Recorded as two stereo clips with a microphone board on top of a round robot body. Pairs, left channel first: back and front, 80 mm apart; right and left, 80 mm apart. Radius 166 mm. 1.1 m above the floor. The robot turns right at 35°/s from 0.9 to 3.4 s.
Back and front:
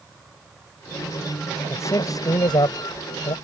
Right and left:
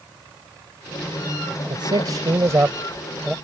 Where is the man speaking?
120° left; by 3.3 s straight behind.